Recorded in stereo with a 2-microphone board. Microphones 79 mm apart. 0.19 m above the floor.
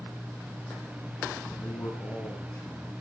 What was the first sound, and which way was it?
A man speaking, 40° left (ahead or behind).